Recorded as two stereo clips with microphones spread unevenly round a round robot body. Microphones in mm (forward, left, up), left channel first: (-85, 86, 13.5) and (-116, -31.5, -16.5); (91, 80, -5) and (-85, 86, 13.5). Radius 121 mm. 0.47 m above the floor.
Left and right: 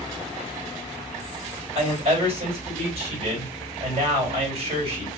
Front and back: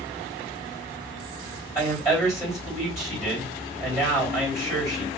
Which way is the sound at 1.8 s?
105° right.